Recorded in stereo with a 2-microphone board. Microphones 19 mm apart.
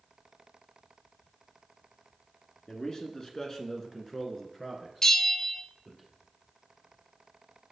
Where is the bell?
35° left (ahead or behind), 0.6 m.